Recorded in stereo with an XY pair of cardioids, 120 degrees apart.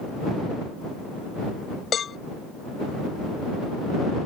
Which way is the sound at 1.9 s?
40° left.